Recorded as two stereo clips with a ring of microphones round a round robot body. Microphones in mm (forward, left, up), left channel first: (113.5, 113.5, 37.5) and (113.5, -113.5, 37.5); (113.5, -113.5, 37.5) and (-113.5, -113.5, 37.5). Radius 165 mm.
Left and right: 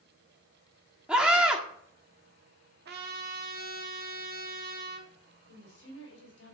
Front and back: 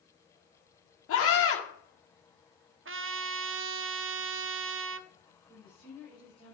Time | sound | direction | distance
1.1 | a scream | 5° right | 1.7 m
2.9 | a trumpet | 145° right | 0.7 m
5.5 | a woman speaking | 75° left | 4 m